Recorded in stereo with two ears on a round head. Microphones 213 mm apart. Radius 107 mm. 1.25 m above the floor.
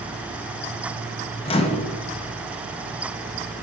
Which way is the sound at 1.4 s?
25° left (ahead or behind).